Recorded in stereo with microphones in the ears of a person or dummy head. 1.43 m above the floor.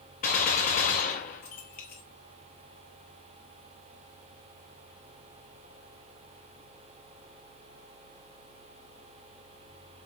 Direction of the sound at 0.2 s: 45° left (ahead or behind).